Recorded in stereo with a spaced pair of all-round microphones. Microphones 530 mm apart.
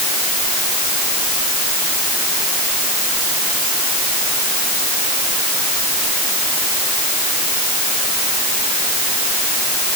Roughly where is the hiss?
I don't hear a hiss.